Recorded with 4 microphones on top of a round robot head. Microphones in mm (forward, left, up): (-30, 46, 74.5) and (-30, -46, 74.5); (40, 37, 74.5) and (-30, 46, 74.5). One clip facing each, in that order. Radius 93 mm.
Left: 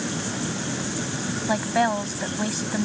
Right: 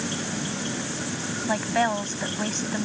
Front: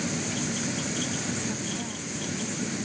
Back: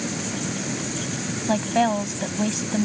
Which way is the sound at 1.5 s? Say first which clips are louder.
Left 2 dB, back 13 dB; 175° left.